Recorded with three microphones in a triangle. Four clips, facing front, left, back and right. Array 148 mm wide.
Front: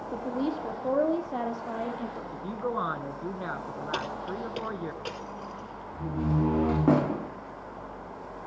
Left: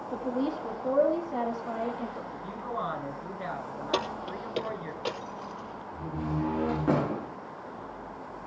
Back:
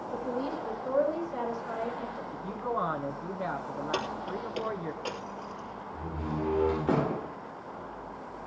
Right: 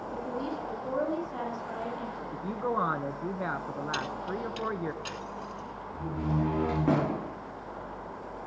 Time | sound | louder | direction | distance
0.1 | a woman speaking | left 5 dB, front 3 dB | 35° left | 5 m
2.3 | a woman speaking | right 4 dB, front 1 dB | 65° right | 1.9 m
3.9 | keys jangling | left 6 dB, front 1 dB | 90° left | 3 m
5.9 | a door slam | right 1 dB, front 6 dB | 5° right | 7.5 m